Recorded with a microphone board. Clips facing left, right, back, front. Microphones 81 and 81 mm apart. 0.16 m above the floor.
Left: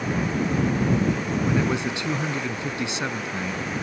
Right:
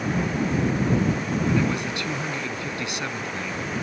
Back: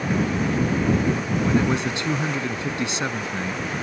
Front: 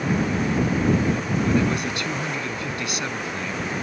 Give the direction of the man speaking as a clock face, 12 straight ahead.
7 o'clock.